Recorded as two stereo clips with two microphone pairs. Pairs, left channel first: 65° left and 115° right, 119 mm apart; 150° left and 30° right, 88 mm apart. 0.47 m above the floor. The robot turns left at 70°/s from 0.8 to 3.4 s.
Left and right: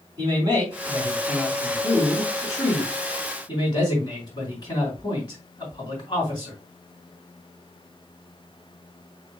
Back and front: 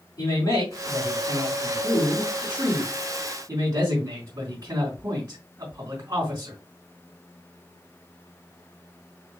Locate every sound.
0.2 s a man speaking: 160° right, 3.5 m; by 6.5 s 15° left, 3.5 m